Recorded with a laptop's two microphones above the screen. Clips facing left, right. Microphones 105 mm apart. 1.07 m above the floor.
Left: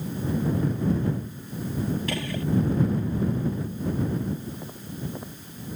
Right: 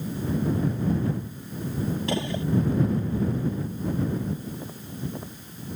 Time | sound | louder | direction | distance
2.1 | a gunshot | right 2 dB | 25° right (ahead or behind) | ?